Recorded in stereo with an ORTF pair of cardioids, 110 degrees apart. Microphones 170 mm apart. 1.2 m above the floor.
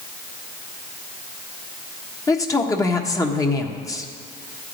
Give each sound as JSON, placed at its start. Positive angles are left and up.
{"t": 2.3, "sound": "a man speaking", "azimuth_deg": 20, "distance_m": 1.4}